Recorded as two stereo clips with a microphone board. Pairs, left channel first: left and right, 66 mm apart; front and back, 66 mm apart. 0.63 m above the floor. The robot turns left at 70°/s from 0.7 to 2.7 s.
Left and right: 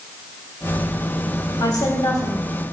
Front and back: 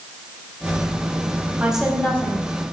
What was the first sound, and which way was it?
A woman speaking, 105° left.